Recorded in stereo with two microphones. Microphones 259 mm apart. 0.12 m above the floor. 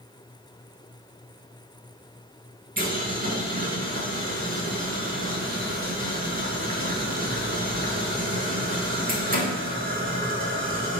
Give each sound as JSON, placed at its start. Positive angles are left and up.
{"t": 2.8, "sound": "boiling", "side_deg": -35, "distance_m": 0.5}